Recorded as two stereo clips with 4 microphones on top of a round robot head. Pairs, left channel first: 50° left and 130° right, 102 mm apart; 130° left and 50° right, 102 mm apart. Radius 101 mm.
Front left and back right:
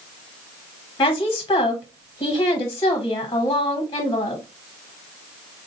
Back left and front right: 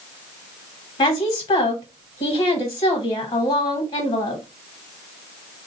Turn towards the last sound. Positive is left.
turn(degrees=100)